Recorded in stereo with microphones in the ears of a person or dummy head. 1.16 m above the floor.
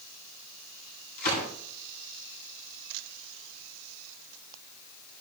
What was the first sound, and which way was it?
A gunshot, 60° left (ahead or behind).